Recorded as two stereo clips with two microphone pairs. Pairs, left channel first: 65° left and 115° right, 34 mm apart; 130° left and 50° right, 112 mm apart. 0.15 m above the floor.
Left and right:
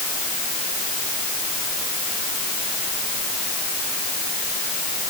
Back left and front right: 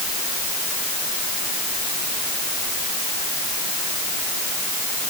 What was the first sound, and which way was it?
Only background noise.